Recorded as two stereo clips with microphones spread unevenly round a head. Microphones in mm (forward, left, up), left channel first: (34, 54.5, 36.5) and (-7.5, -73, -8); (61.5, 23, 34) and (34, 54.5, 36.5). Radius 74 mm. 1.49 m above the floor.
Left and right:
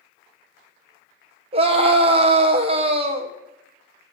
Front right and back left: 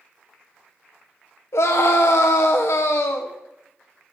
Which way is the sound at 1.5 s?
65° right.